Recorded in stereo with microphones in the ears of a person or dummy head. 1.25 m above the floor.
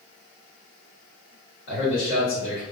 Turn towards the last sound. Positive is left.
turn(degrees=55)  # may be behind; listen again after turning